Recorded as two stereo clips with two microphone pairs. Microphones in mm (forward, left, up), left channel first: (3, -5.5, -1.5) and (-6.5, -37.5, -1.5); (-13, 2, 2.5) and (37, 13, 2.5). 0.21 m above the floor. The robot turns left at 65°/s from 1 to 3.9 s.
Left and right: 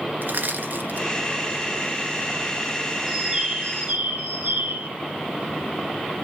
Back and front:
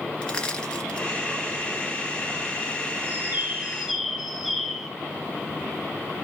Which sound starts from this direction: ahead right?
A bird, at 3.1 s.